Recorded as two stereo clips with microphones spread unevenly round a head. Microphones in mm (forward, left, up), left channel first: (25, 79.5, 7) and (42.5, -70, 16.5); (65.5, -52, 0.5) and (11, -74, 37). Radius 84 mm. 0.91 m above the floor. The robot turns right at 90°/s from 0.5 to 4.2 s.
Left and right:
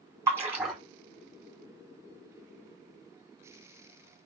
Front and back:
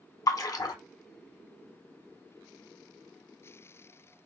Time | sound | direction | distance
0.3 | a splash | 10° right | 1.0 m